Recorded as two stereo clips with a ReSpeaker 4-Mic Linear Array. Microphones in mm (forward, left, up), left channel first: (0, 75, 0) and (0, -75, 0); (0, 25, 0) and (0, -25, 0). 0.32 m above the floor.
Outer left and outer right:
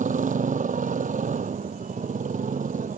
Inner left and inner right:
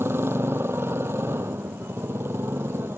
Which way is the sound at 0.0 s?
65° right (ahead or behind).